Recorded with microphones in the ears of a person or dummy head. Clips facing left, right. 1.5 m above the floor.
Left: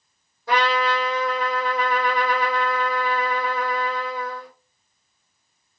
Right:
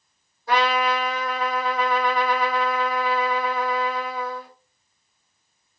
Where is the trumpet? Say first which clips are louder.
Even; 60° left (ahead or behind), 3 m.